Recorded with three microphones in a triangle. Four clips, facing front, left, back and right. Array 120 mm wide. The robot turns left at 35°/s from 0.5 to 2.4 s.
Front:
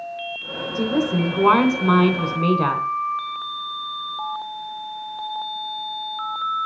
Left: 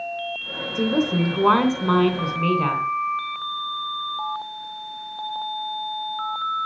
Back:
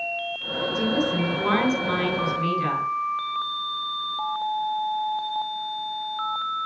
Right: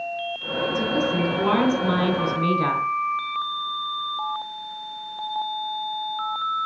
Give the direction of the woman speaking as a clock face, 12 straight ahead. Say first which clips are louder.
Left 4 dB, front 4 dB; 10 o'clock.